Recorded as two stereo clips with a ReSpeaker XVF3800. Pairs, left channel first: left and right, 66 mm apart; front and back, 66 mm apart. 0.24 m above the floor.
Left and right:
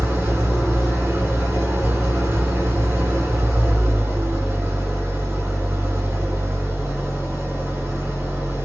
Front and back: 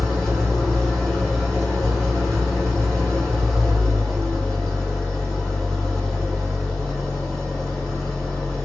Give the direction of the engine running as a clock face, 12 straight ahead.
3 o'clock.